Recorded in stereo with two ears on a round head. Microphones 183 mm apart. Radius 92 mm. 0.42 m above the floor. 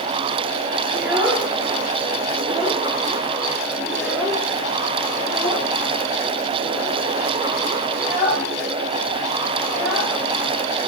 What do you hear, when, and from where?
0.9 s a child speaking: 10° right (ahead or behind), 7 m; by 10.1 s centre (ahead or behind), 12 m